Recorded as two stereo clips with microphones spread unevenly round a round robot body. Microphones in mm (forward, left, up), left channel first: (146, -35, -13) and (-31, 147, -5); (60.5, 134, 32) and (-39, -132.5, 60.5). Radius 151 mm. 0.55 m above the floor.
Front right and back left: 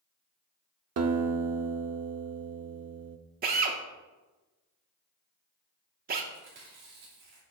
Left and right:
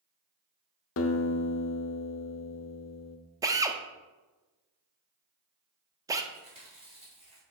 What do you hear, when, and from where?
1.0 s a guitar: 110° left, 0.6 m
3.4 s a drill: 170° left, 0.5 m
6.3 s chewing: straight behind, 2.5 m